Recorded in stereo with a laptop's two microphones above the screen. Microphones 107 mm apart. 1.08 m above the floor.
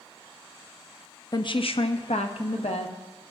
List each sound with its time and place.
1.3 s a woman speaking: 40° left (ahead or behind), 0.5 m; by 3.3 s 75° left (ahead or behind), 1.5 m